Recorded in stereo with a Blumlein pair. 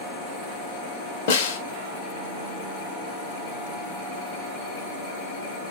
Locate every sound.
1.3 s a snare drum: 55° left, 0.7 m